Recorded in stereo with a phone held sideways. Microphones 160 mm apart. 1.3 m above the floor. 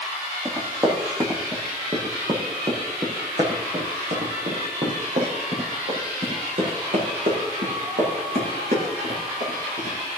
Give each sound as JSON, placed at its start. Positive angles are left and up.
{"t": 0.5, "sound": "running footsteps", "side_deg": -20, "distance_m": 3.5}